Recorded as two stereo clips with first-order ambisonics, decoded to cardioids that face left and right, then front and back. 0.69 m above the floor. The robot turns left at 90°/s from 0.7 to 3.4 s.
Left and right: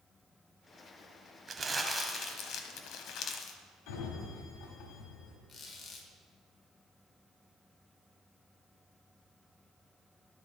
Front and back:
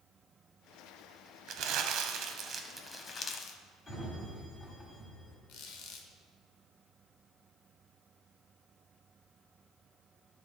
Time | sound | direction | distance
1.5 | crumpling | 150° right | 0.7 m
3.9 | a sliding door | 70° left | 1.4 m
5.5 | a squeak | 25° left | 1.0 m